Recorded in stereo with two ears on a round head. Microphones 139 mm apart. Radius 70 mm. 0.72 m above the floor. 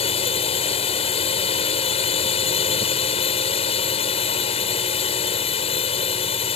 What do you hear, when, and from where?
0.0 s a drone: 40° left (ahead or behind)